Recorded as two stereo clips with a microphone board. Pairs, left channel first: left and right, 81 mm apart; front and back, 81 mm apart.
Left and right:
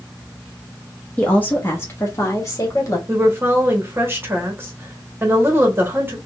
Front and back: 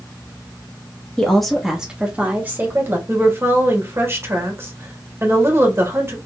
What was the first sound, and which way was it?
A woman speaking, 60° left.